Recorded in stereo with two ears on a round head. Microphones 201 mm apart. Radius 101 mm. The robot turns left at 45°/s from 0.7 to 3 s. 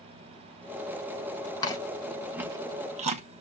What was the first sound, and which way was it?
Chewing, 20° left (ahead or behind).